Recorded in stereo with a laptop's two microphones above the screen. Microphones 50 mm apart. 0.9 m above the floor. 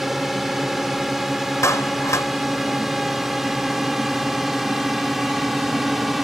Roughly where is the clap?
Left.